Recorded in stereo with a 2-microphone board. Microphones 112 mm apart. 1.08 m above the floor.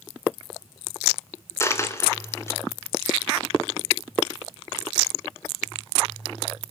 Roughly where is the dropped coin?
Left.